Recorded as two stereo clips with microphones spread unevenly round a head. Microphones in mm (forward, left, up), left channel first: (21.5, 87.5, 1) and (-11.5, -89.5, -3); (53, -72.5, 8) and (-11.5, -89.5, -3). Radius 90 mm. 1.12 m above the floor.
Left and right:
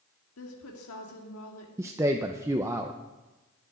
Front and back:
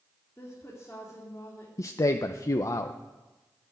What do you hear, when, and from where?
0.4 s a woman speaking: 90° left, 2.5 m
1.8 s a man speaking: 30° right, 0.7 m